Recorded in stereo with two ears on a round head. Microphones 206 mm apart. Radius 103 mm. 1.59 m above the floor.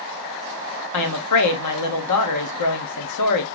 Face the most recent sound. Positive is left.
turn(degrees=90)